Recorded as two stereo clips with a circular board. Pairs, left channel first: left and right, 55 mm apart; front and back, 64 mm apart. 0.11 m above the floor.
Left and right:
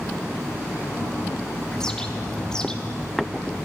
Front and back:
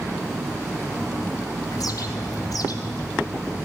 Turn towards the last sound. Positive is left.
turn(degrees=10)